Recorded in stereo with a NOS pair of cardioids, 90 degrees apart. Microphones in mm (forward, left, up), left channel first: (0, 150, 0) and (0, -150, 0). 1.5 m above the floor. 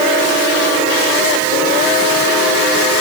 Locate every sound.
Only background noise.